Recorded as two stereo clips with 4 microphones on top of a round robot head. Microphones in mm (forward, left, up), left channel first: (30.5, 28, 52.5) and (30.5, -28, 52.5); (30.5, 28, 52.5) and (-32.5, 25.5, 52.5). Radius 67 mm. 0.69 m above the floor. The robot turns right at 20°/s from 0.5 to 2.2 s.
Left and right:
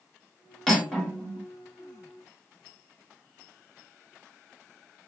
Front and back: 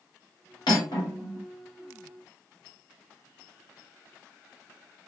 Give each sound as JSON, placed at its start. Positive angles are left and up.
{"t": 0.7, "sound": "cutlery clinking", "azimuth_deg": 10, "distance_m": 1.4}